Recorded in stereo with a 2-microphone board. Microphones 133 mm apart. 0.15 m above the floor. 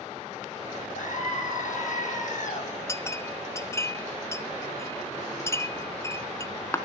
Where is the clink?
20° left (ahead or behind), 1.1 m.